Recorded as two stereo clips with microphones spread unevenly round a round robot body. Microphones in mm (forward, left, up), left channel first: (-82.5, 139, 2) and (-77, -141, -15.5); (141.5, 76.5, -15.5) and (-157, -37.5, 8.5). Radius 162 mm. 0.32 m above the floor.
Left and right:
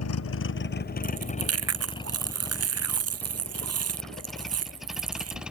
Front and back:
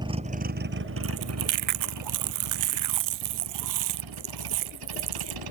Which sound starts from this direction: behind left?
A vehicle, at 0.0 s.